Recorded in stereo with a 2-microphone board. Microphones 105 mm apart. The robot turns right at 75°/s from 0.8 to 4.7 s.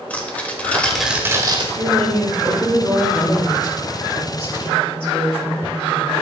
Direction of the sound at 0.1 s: 165° left.